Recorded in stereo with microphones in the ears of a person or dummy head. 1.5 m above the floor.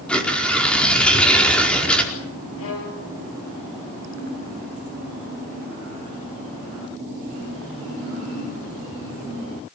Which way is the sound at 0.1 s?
5° left (ahead or behind).